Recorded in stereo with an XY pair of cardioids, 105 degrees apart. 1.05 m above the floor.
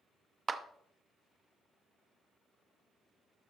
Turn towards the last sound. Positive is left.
turn(degrees=-30)